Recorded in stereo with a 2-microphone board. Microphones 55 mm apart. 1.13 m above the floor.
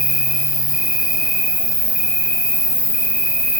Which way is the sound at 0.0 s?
20° right (ahead or behind).